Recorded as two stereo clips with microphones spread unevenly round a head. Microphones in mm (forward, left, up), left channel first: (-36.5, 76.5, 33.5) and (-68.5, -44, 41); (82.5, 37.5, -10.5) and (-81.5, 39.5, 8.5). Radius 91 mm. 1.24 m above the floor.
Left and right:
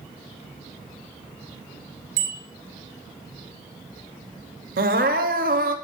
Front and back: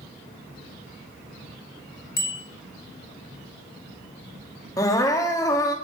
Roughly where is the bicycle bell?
Ahead right.